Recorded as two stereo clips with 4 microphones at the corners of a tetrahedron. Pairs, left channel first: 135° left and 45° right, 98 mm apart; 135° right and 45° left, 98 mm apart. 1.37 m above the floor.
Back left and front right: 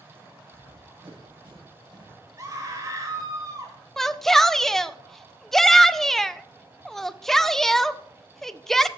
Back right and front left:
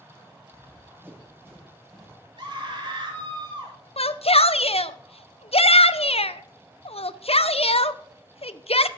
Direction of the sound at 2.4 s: 10° left.